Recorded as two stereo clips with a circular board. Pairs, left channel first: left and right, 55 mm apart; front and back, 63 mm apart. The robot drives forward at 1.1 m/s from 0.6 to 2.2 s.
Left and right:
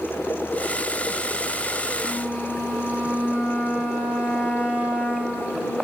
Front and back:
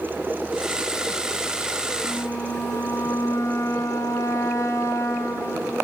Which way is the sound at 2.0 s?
20° right.